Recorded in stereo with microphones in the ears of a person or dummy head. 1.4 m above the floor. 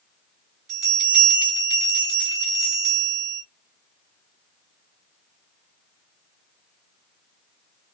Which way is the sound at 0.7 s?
55° right (ahead or behind).